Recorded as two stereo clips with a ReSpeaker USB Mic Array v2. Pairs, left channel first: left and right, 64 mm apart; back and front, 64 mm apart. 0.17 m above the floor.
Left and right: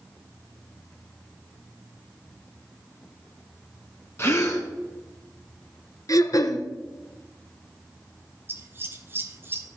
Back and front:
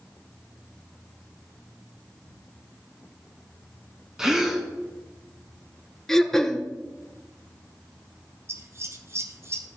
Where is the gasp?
80° left, 1.6 m.